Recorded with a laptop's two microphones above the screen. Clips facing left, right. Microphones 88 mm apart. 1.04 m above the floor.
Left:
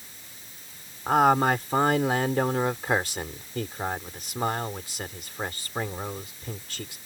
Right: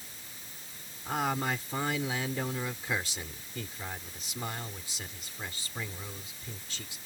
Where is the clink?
I don't hear a clink.